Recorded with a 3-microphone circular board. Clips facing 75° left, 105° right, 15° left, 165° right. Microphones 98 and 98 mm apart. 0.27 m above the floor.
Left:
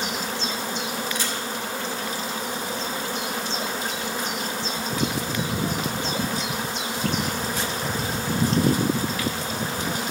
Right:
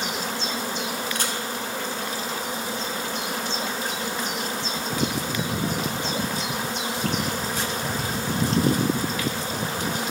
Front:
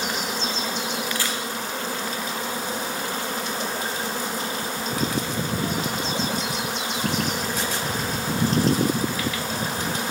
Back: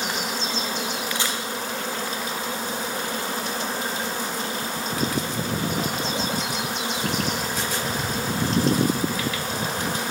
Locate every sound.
1.1 s a camera shutter: 100° right, 2.5 m